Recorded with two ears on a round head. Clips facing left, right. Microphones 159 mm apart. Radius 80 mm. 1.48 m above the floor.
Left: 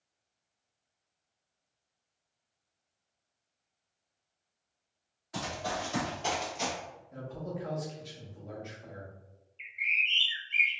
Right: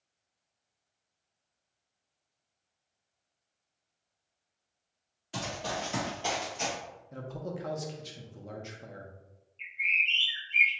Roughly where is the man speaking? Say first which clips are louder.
Right 1 dB; right.